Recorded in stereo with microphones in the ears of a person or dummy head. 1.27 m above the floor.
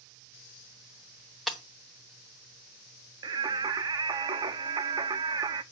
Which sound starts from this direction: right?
Singing, at 3.2 s.